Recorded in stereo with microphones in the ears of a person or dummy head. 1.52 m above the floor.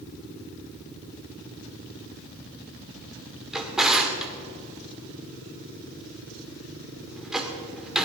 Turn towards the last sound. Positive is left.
turn(degrees=0)  # may be behind; listen again after turning